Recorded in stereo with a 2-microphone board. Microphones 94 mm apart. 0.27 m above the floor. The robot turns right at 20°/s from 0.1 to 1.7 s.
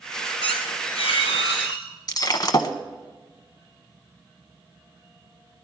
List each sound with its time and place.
0.4 s a squeak: 80° left, 2.5 m; by 1.9 s 70° left (ahead or behind), 2.5 m
2.1 s breaking glass: 45° left (ahead or behind), 0.8 m